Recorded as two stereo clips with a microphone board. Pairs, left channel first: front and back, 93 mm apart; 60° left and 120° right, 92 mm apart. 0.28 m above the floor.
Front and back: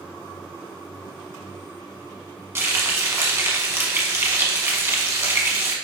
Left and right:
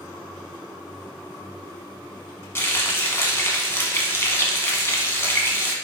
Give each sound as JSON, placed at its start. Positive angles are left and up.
{"t": 2.5, "sound": "frying", "azimuth_deg": 120, "distance_m": 0.9}